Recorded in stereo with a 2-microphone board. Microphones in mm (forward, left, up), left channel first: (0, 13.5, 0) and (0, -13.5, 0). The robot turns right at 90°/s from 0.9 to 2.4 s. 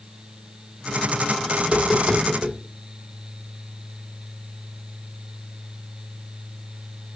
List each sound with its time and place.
1.6 s tapping: 50° right (ahead or behind), 2.5 m; by 2.5 s 10° left (ahead or behind), 2.5 m